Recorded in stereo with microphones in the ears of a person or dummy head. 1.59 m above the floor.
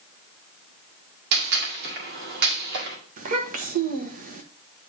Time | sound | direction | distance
1.3 | a gunshot | 55° right (ahead or behind) | 1.8 m
3.2 | a child speaking | 45° right (ahead or behind) | 1.1 m